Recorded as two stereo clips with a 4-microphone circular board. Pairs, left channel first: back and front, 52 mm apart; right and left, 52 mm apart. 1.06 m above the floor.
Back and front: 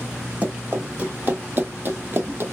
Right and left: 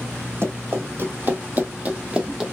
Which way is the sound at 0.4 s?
60° left.